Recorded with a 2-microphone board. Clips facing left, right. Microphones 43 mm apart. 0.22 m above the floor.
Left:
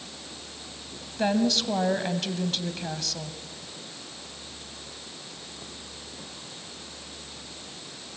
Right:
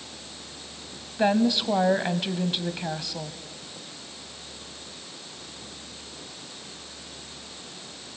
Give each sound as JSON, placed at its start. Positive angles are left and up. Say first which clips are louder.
{"t": 1.2, "sound": "a woman speaking", "louder": "right 2 dB", "side_deg": -20, "distance_m": 1.3}